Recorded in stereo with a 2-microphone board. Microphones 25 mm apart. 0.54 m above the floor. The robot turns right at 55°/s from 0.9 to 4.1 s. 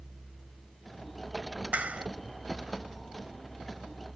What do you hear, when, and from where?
1.7 s a clap: 70° right (ahead or behind); by 2.1 s 55° right (ahead or behind)